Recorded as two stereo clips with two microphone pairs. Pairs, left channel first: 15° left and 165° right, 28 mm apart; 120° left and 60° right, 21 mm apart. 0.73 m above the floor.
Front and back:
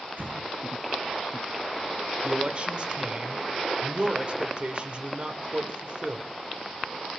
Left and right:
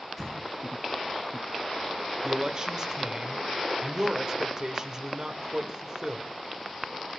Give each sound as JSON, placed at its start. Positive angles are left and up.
{"t": 0.2, "sound": "an explosion", "azimuth_deg": -150, "distance_m": 7.0}
{"t": 2.2, "sound": "a man speaking", "azimuth_deg": -120, "distance_m": 3.0}